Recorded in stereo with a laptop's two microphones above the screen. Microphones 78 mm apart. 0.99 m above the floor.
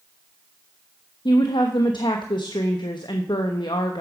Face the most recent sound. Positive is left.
turn(degrees=75)  # may be behind; listen again after turning